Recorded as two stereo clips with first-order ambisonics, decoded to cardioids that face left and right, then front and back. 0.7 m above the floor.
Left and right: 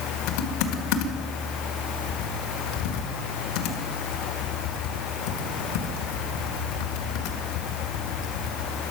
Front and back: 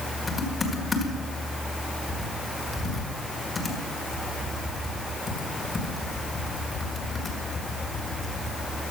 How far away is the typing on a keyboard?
About 1.7 m.